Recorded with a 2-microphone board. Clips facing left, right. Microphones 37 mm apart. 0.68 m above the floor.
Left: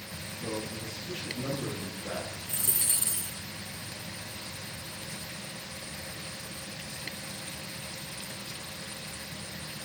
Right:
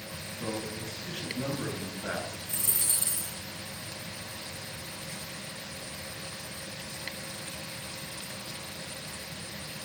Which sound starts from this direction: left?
A dropped coin, at 2.5 s.